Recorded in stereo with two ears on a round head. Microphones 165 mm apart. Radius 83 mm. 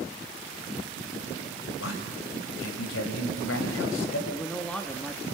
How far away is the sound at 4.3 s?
About 1.0 m.